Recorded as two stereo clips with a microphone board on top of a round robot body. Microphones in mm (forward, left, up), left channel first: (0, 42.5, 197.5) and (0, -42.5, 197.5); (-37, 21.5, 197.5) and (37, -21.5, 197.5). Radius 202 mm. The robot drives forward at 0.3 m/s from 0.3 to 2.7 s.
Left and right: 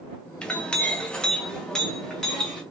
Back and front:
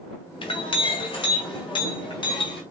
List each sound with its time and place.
0.4 s a clink: 170° left, 0.7 m; by 2.6 s 175° left, 1.3 m